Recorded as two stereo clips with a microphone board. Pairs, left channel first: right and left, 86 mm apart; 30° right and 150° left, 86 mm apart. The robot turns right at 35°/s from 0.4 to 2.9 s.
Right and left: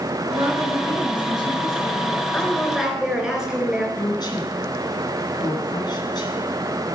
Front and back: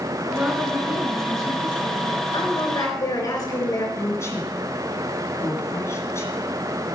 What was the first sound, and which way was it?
A woman speaking, 75° left.